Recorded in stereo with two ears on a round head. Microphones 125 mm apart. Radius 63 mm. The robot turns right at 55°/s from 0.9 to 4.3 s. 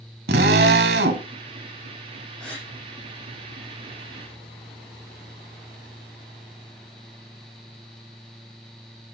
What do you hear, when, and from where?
0.3 s a drill: 85° right, 1.4 m; by 1.3 s 75° right (ahead or behind), 1.4 m
2.4 s a gasp: 5° left (ahead or behind), 7.5 m; by 2.7 s 20° left (ahead or behind), 7.5 m